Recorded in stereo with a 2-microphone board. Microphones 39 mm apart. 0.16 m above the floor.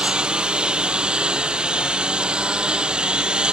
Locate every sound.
0.0 s a lawn mower: 25° right (ahead or behind)